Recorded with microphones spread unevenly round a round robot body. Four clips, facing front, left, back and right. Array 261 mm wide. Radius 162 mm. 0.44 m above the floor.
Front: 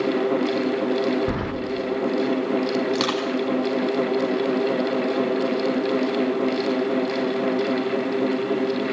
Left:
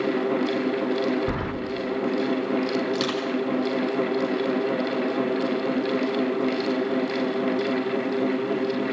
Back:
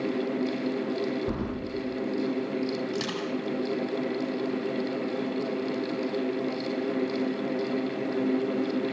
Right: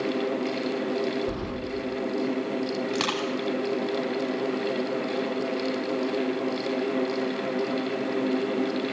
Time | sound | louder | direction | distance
1.3 | keys jangling | left 3 dB, front 5 dB | 30° left | 1.1 m
2.9 | crushing | left 2 dB, front 8 dB | 25° right | 5 m